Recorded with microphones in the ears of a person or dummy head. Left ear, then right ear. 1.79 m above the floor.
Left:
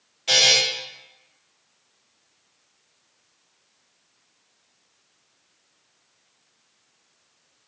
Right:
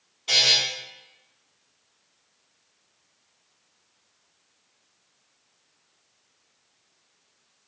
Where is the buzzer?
45° left (ahead or behind), 1.8 m.